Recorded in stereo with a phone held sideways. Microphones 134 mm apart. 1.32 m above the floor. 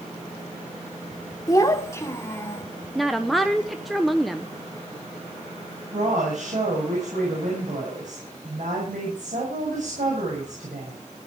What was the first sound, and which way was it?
A child speaking, 25° left (ahead or behind).